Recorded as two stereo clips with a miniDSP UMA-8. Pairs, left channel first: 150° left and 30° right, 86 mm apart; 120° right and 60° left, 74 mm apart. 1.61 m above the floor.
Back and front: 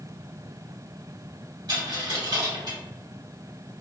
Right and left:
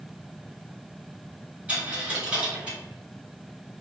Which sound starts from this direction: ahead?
A dropped coin, at 1.7 s.